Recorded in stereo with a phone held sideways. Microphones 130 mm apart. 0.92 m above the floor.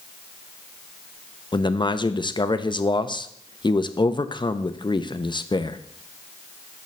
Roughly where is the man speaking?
Left.